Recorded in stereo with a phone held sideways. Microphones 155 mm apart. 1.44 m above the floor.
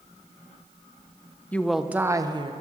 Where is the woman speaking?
10° left (ahead or behind), 0.7 m; by 2.5 s 35° right (ahead or behind), 0.9 m.